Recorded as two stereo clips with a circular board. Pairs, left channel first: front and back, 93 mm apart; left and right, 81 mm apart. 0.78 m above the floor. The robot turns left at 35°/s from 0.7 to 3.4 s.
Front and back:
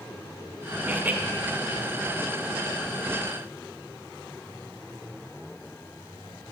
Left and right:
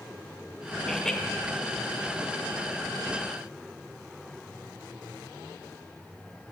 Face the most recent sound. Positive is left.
turn(degrees=75)